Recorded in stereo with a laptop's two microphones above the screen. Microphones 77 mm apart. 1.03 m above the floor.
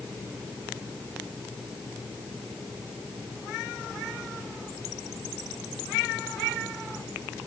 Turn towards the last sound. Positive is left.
No sound to turn to.